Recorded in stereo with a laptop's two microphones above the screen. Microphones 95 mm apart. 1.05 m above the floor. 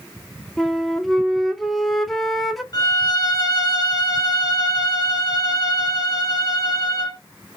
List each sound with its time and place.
0.6 s a flute: centre (ahead or behind), 0.5 m
2.7 s a violin: 45° left (ahead or behind), 0.8 m